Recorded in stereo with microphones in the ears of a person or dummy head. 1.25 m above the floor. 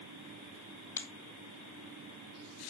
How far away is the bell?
No bell in this recording.